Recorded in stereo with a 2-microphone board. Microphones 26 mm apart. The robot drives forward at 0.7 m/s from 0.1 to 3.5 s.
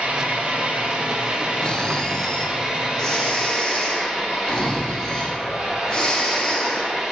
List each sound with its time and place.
0.0 s an engine running: 65° right (ahead or behind), 2.5 m; by 7.1 s 40° right (ahead or behind), 3.5 m
1.6 s snoring: 30° left (ahead or behind), 0.9 m; by 6.9 s 15° left (ahead or behind), 2 m